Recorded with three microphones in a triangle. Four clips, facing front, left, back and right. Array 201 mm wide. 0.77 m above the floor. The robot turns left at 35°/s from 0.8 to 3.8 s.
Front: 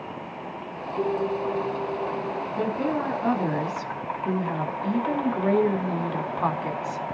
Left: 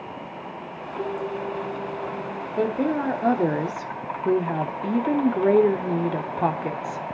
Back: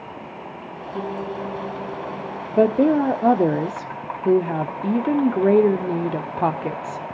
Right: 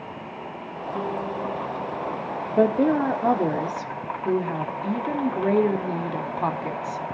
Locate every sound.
0.9 s a piano: 130° right, 6 m; by 2.5 s 175° left, 6 m
2.6 s a woman speaking: 165° right, 1.5 m; by 7.0 s 150° left, 1.5 m